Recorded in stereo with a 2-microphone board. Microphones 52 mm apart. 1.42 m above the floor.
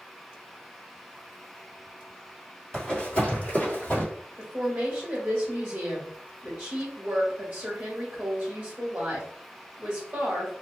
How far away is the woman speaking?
About 0.9 m.